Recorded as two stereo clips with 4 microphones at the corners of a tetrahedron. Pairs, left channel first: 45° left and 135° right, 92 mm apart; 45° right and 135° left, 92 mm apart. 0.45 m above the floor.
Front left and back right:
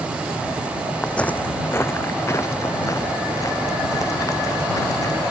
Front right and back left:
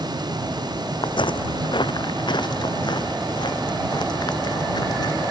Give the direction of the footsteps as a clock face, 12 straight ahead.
1 o'clock.